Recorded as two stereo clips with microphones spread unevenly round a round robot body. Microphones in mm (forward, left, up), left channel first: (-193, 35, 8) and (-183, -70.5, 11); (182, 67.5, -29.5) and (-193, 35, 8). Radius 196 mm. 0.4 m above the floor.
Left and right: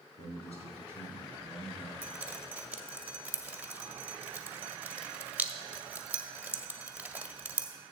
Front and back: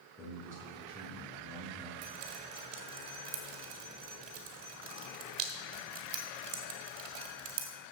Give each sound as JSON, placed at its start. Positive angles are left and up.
{"t": 0.2, "sound": "a man speaking", "azimuth_deg": 95, "distance_m": 4.5}
{"t": 2.0, "sound": "dripping", "azimuth_deg": -160, "distance_m": 1.7}